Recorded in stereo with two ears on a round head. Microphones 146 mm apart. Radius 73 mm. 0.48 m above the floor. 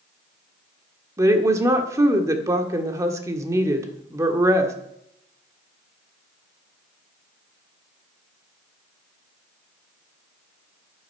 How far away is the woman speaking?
About 1.4 m.